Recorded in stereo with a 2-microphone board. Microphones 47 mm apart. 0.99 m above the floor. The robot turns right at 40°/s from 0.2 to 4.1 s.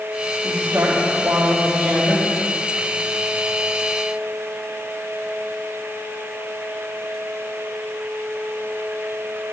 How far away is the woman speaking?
About 2.5 m.